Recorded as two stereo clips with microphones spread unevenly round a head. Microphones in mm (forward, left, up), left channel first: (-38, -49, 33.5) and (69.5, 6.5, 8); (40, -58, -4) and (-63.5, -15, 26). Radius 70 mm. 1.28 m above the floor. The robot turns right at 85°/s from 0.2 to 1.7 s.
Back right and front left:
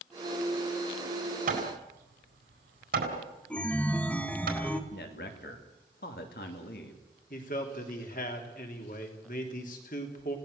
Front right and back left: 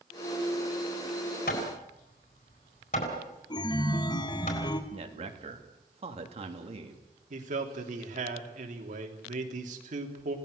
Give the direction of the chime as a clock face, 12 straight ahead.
2 o'clock.